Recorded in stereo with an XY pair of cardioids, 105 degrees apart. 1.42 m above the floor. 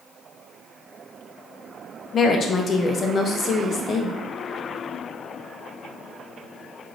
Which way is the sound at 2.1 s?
45° left.